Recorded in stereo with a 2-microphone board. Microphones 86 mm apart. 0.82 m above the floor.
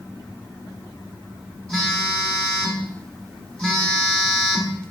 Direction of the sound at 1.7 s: 10° left (ahead or behind).